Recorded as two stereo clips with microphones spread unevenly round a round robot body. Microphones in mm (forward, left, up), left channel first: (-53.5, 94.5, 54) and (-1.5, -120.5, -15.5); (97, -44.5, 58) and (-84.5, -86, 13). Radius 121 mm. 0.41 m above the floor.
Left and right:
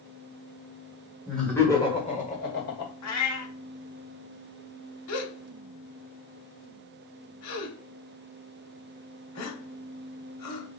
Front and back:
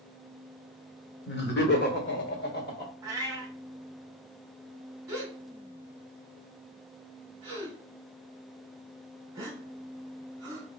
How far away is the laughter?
About 1.5 m.